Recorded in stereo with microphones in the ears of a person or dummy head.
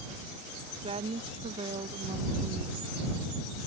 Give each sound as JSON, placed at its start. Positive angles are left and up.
{"t": 0.8, "sound": "a woman speaking", "side_deg": -35}